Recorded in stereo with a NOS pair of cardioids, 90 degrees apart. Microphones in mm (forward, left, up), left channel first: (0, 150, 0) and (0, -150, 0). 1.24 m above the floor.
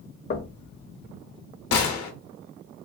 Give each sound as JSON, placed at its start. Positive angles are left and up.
{"t": 0.3, "sound": "knocking", "azimuth_deg": 35, "distance_m": 0.6}
{"t": 1.7, "sound": "a gunshot", "azimuth_deg": 70, "distance_m": 0.8}